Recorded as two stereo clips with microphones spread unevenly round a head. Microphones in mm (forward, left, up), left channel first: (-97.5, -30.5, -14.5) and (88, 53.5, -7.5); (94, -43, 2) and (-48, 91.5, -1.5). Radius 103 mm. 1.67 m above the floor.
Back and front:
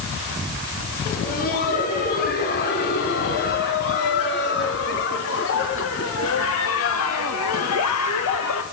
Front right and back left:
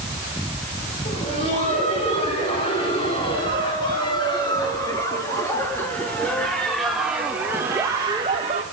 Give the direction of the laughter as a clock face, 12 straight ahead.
4 o'clock.